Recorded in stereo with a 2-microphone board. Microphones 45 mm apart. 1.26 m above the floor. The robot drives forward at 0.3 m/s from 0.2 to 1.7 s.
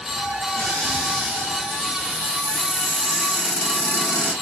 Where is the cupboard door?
30° right (ahead or behind), 1.8 m; by 4.3 s 25° right (ahead or behind), 2 m.